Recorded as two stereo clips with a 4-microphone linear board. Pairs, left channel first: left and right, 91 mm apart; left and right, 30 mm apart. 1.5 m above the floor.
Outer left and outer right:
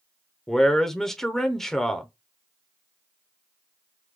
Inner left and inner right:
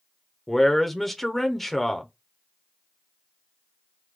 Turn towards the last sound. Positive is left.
turn(degrees=5)  # may be behind; listen again after turning